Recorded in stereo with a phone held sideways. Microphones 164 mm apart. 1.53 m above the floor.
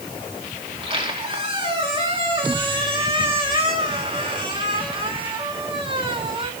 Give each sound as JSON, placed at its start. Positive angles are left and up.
{"t": 0.7, "sound": "a squeak", "side_deg": -35, "distance_m": 2.5}